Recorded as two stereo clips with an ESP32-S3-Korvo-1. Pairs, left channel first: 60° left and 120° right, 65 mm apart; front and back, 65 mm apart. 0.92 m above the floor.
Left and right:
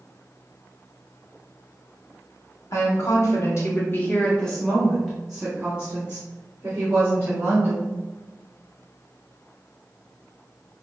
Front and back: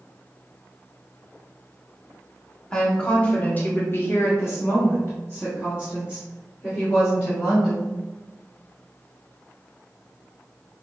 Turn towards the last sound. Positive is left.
turn(degrees=-65)